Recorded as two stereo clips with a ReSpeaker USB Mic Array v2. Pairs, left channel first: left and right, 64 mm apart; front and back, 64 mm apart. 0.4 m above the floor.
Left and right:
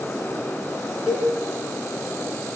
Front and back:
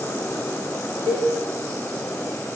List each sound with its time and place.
1.1 s a cowbell: 170° right, 3.5 m